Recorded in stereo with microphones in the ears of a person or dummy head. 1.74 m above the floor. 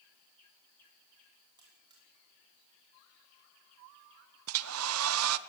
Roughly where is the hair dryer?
Right.